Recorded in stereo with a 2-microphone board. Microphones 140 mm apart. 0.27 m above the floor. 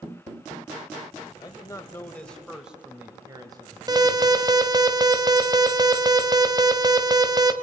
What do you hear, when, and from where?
1.4 s a man speaking: 30° left (ahead or behind), 1.7 m; by 4.9 s 50° right (ahead or behind), 2.5 m
3.9 s an alarm: 30° right (ahead or behind), 1.3 m